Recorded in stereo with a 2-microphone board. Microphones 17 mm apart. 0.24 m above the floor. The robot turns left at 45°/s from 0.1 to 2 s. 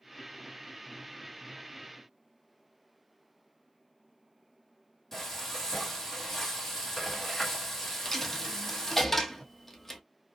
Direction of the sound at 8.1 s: 10° left (ahead or behind).